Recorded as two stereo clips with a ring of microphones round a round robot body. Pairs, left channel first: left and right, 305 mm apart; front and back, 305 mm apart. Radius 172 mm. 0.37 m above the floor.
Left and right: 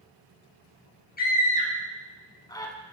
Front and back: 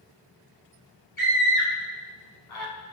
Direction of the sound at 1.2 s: 30° left.